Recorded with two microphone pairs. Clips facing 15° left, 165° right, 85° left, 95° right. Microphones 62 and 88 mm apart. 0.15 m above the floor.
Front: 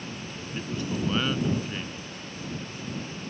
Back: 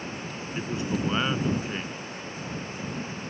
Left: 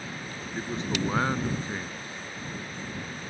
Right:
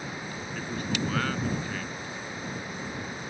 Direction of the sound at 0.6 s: 135° left.